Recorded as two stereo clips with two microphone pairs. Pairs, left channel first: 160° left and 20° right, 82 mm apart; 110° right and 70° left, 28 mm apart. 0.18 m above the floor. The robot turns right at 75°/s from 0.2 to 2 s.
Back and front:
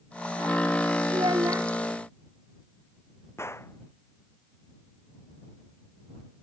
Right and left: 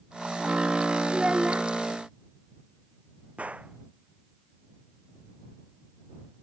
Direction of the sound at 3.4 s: 105° left.